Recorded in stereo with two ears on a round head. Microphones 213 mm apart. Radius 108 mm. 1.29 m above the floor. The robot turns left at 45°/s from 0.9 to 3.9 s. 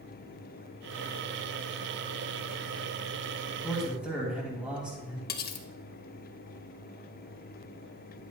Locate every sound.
3.6 s a man speaking: 5° left (ahead or behind), 2.5 m; by 5.2 s 5° right (ahead or behind), 2.5 m
5.3 s cutlery clinking: 40° left (ahead or behind), 0.7 m